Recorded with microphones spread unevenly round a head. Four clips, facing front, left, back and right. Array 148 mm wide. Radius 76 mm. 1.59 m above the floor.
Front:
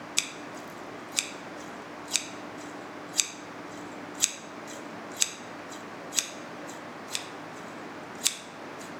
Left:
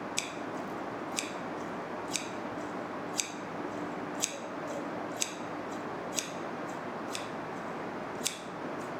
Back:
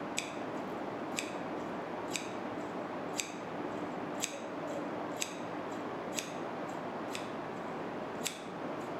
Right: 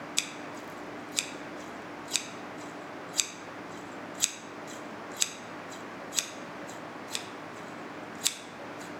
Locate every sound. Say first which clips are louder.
0.2 s scissors: left 3 dB, back 1 dB; 25° right, 0.6 m